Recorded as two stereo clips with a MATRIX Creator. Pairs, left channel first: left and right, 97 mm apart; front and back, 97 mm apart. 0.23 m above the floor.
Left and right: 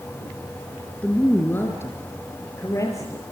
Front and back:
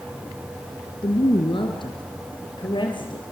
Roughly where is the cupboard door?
I don't hear a cupboard door.